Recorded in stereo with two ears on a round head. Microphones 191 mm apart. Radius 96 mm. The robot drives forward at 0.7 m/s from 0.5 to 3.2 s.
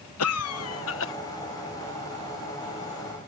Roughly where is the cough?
Left.